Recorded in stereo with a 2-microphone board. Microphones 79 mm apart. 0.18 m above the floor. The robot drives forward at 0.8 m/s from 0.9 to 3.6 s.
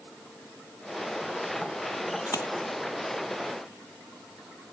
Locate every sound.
2.3 s a splash: 50° left (ahead or behind)